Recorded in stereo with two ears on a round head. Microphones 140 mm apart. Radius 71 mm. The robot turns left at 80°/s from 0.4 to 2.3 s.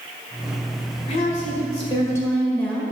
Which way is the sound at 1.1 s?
110° left.